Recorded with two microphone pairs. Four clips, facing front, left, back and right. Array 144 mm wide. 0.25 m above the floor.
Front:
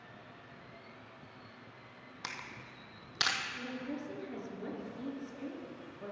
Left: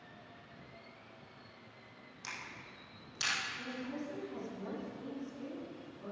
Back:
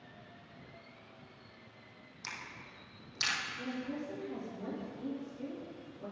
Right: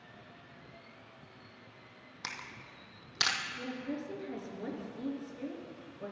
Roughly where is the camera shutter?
Ahead right.